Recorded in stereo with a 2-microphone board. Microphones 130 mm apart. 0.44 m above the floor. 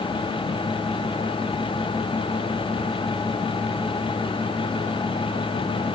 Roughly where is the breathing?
I don't hear breathing.